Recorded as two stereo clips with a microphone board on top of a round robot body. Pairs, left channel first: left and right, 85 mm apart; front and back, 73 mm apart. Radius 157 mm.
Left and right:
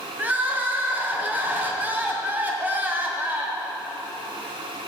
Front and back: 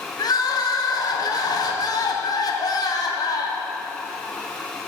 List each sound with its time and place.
0.2 s crying: 20° right, 1.8 m